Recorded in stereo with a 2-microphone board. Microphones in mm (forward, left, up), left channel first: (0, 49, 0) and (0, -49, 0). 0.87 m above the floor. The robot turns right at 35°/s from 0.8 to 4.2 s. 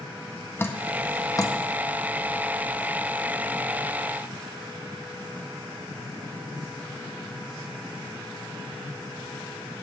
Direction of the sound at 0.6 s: 25° left (ahead or behind).